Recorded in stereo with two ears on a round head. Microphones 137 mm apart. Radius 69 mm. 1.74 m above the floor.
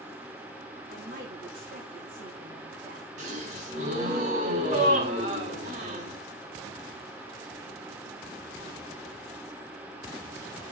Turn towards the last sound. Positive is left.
turn(degrees=-50)  # may be behind; listen again after turning